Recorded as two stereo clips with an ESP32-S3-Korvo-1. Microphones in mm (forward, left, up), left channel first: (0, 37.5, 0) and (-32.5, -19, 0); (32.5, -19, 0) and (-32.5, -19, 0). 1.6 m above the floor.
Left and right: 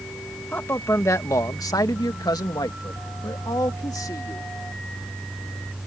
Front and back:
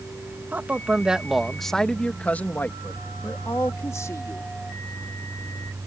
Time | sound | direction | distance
0.5 | a man speaking | 120° left | ?